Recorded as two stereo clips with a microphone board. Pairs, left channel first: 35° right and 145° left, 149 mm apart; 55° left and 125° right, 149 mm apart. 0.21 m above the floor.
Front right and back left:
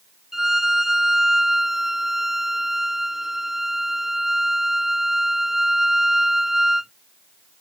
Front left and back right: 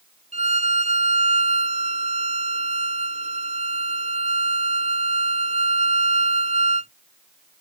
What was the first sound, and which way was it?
A violin, 130° right.